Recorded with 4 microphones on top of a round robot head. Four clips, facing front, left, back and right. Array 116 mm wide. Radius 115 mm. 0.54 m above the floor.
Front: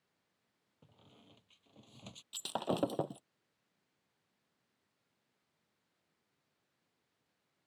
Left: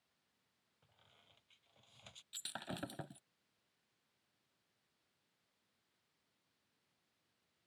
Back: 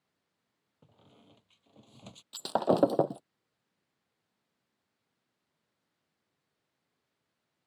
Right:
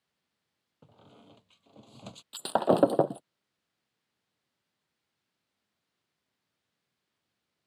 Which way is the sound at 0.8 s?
100° right.